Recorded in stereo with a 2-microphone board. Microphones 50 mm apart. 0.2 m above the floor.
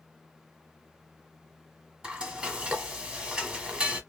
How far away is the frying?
About 1.0 m.